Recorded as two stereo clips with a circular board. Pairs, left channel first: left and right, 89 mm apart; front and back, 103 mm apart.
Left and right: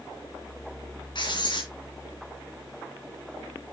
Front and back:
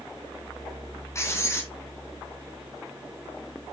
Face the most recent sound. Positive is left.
turn(degrees=60)